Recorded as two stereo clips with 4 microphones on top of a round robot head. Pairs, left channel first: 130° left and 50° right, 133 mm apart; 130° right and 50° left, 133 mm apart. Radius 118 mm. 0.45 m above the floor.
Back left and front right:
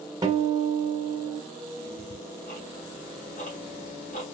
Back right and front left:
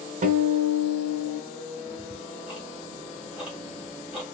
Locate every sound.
0.2 s a guitar: 15° left, 1.4 m
1.9 s ticking: 130° left, 2.5 m